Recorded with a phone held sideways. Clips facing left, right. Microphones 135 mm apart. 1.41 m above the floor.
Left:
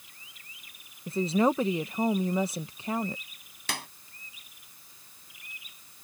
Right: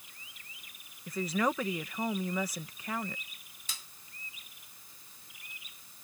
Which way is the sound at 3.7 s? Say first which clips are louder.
Left 15 dB; 65° left (ahead or behind).